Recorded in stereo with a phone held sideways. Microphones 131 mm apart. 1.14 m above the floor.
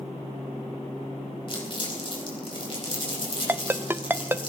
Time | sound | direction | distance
1.5 | crumpling | 40° left (ahead or behind) | 4.5 m
3.5 | a ringtone | 15° right (ahead or behind) | 0.6 m